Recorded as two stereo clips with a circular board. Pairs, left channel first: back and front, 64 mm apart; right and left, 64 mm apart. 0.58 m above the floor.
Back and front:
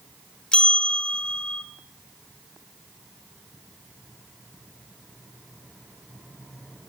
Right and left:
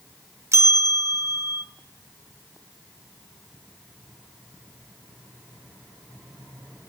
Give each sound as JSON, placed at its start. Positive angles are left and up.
{"t": 0.5, "sound": "a bell", "azimuth_deg": 110, "distance_m": 0.5}